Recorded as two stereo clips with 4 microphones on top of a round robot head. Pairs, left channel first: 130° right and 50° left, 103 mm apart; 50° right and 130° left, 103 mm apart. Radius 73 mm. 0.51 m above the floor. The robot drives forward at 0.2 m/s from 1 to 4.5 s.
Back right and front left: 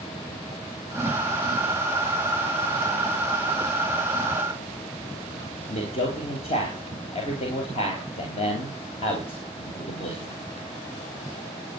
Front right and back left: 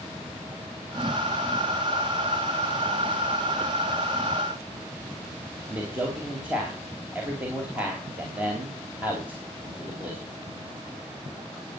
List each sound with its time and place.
5.7 s a man speaking: 155° right, 4 m